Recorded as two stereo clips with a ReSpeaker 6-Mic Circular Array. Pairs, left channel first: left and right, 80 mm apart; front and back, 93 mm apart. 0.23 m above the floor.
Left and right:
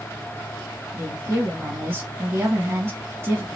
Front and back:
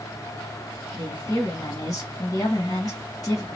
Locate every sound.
0.9 s a woman speaking: 35° right, 1.9 m